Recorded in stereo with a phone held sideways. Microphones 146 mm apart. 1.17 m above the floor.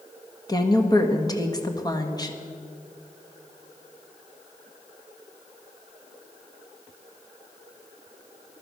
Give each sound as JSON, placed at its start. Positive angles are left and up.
{"t": 0.5, "sound": "a woman speaking", "side_deg": 25, "distance_m": 1.6}